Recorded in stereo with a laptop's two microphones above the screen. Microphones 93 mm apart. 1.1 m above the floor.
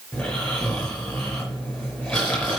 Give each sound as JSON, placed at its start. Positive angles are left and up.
{"t": 0.1, "sound": "snoring", "side_deg": 5, "distance_m": 4.0}